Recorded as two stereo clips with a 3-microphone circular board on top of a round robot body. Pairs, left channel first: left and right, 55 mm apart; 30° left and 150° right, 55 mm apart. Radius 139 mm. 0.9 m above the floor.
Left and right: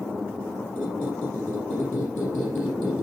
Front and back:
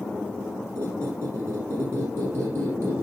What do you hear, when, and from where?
0.8 s a squeak: 155° left, 4.5 m